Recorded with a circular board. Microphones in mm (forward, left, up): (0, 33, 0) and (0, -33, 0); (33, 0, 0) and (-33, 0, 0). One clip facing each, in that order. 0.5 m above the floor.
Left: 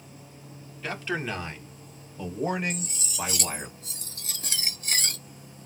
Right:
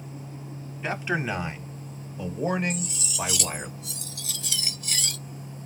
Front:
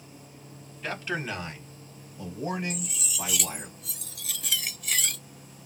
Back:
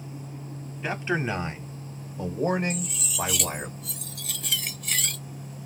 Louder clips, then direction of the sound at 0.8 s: Right 3 dB, back 4 dB; 130° right.